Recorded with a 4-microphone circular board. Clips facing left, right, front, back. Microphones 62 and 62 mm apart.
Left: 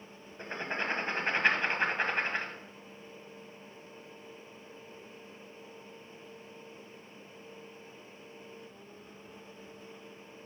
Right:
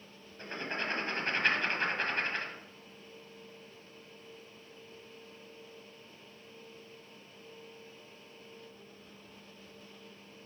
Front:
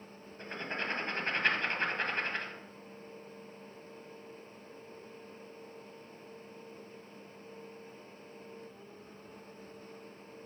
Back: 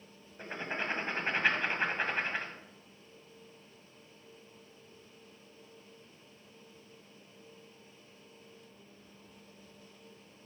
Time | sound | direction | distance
0.4 | writing | 125° left | 1.3 m